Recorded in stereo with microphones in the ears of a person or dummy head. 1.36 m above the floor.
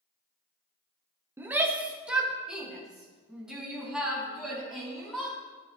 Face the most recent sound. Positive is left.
turn(degrees=0)  # may be behind; listen again after turning